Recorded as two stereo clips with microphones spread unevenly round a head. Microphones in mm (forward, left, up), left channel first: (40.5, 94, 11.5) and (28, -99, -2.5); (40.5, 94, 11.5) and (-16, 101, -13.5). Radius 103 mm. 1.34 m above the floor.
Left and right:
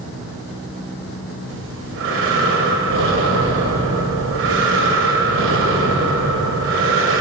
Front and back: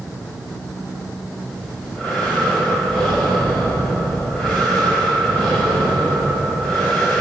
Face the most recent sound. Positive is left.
turn(degrees=-75)